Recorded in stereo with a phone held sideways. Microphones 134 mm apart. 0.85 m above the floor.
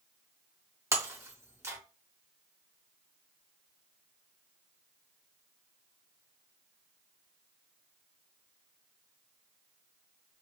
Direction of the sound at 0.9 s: 20° right (ahead or behind).